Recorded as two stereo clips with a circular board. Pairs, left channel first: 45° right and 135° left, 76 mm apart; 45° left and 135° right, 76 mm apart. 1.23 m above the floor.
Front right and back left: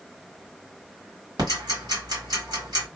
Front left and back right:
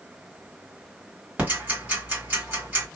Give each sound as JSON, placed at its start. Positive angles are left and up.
{"t": 1.4, "sound": "ticking", "azimuth_deg": 155, "distance_m": 1.6}